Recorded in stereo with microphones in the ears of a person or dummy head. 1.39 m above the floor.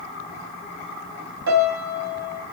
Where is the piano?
70° right (ahead or behind), 1.3 m.